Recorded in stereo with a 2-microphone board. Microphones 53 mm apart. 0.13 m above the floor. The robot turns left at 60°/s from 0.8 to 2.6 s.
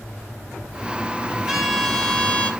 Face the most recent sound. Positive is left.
turn(degrees=135)